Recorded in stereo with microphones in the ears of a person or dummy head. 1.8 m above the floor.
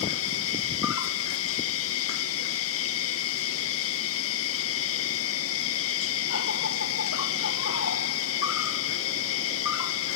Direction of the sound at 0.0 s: 70° left (ahead or behind).